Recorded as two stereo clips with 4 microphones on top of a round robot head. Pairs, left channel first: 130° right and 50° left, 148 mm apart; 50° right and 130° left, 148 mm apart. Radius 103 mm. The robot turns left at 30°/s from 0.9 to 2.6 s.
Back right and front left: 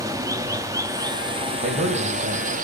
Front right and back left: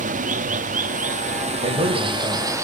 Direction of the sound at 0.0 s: 115° left.